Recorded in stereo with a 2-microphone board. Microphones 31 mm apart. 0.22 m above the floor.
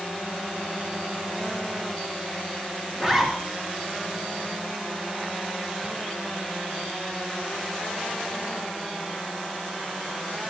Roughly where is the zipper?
Centre.